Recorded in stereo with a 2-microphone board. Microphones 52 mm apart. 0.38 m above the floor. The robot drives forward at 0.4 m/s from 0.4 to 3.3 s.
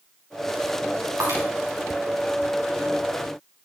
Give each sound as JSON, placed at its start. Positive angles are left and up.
{"t": 1.2, "sound": "breaking glass", "side_deg": -70, "distance_m": 6.5}